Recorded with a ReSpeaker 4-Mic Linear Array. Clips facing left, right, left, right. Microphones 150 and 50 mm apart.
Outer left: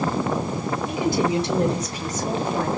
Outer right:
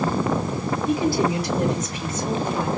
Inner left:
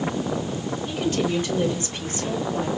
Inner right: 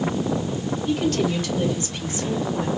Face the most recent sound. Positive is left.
turn(degrees=50)  # may be behind; listen again after turning